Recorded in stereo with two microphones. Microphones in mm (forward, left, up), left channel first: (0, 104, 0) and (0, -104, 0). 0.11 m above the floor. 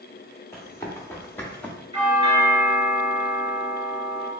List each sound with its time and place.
0.5 s running footsteps: 15° left (ahead or behind), 2.0 m; by 1.8 s 5° left (ahead or behind), 1.1 m
1.9 s a doorbell: 20° right (ahead or behind), 1.9 m